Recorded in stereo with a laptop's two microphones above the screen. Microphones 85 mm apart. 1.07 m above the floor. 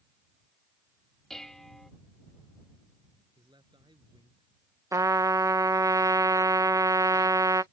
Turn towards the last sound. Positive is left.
turn(degrees=-40)  # may be behind; listen again after turning